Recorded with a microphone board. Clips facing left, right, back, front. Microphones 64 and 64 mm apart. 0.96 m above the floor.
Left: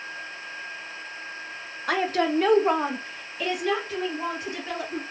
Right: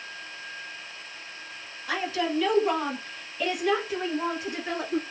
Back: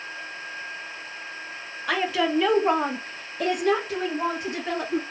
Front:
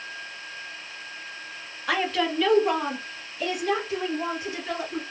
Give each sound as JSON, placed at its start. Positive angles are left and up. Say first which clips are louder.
{"t": 1.9, "sound": "a woman speaking", "louder": "left 4 dB, back 1 dB", "azimuth_deg": 85, "distance_m": 0.9}